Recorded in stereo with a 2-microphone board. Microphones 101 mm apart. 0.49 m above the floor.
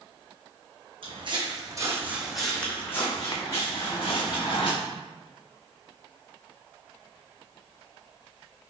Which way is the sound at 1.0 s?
60° right (ahead or behind).